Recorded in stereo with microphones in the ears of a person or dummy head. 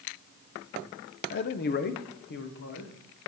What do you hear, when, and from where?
1.3 s a man speaking: 50° left (ahead or behind), 0.5 m; by 3.3 s 55° left (ahead or behind), 1.6 m